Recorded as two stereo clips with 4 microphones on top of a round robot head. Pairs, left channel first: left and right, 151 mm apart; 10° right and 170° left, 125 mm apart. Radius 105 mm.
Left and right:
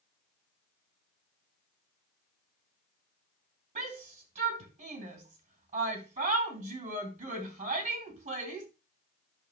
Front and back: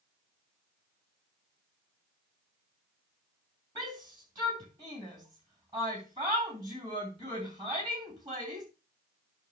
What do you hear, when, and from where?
3.8 s a shout: 130° right, 3.5 m